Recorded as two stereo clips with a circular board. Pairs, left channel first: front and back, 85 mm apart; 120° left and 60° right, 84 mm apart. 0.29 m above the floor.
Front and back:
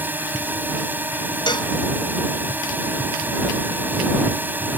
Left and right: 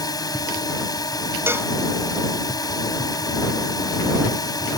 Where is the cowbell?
5° right.